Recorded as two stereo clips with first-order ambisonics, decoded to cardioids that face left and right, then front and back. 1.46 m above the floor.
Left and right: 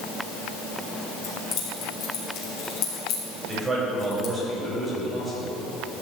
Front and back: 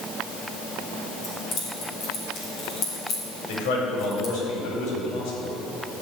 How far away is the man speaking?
About 4 m.